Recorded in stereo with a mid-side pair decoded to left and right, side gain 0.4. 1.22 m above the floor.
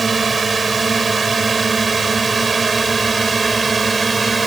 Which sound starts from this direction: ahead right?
A drone, at 0.0 s.